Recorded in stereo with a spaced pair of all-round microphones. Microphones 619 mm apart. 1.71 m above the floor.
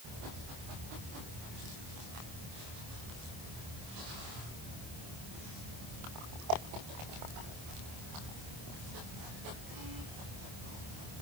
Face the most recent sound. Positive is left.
No sound to turn to.